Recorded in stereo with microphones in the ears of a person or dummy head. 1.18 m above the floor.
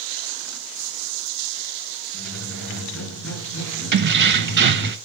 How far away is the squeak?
About 6.5 m.